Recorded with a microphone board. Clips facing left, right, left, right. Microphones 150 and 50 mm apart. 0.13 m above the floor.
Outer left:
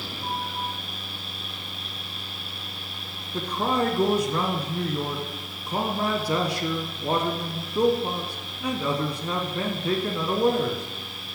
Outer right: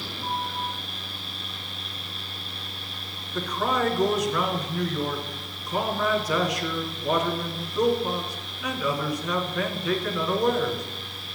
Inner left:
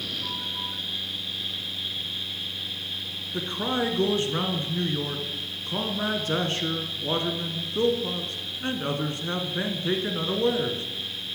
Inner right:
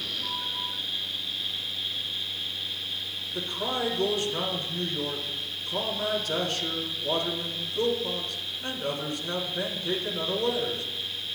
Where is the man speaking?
30° left (ahead or behind), 1.2 m.